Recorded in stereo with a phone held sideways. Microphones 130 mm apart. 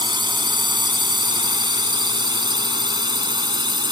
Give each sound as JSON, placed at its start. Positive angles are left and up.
{"t": 0.0, "sound": "a drone", "side_deg": -35}